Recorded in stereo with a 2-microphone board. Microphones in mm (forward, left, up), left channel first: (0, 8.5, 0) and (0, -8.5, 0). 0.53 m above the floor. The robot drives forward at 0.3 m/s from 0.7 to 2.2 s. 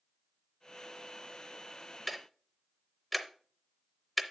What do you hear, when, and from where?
2.1 s ticking: 5° left (ahead or behind), 0.7 m